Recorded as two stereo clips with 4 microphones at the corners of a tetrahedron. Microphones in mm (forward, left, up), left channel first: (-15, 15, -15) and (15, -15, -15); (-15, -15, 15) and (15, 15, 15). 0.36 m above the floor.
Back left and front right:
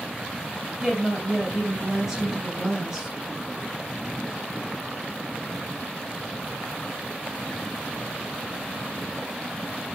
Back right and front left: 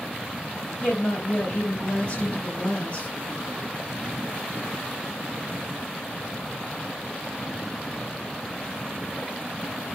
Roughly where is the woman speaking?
Behind right.